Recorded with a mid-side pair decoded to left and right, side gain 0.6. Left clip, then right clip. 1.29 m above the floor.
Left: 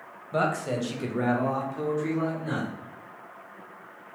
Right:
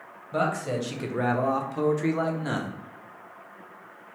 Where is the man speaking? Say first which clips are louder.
Even; straight ahead, 1.1 m; by 2.7 s 80° right, 0.8 m.